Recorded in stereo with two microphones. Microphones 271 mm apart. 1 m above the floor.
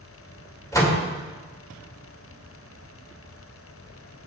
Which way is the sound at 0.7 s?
10° left (ahead or behind).